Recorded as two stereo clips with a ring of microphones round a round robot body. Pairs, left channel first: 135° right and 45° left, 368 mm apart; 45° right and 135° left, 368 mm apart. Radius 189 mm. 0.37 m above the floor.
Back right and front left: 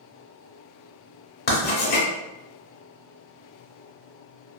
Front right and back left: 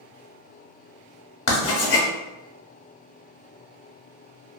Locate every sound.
1.5 s writing: 75° right, 0.8 m